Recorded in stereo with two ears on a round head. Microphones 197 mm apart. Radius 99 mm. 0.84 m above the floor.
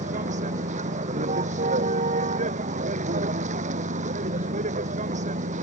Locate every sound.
0.0 s a vehicle: 35° right (ahead or behind)